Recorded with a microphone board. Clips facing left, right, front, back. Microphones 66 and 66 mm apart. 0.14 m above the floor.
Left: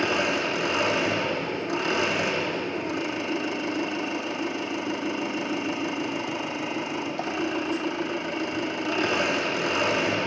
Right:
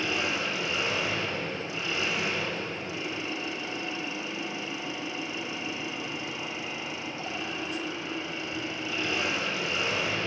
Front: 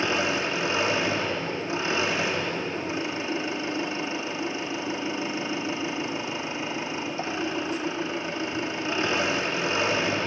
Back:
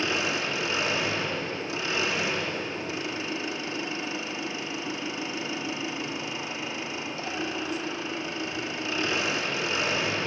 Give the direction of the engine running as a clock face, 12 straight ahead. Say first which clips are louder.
Left 5 dB, front 3 dB; 10 o'clock.